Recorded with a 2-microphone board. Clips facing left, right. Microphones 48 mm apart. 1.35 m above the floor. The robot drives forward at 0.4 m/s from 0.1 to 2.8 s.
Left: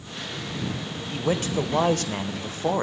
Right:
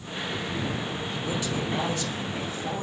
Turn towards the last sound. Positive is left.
turn(degrees=60)  # may be behind; listen again after turning